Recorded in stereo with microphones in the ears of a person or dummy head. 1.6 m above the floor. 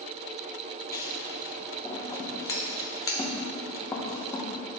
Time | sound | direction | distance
0.9 | scissors | 20° left (ahead or behind) | 0.9 m